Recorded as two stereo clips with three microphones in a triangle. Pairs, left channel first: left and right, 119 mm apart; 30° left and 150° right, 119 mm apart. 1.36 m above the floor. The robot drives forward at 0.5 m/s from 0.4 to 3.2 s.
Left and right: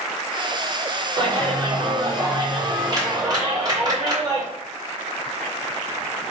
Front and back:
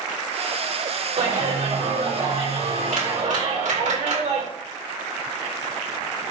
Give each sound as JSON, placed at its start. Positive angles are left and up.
{"t": 1.2, "sound": "a clap", "azimuth_deg": -140, "distance_m": 3.0}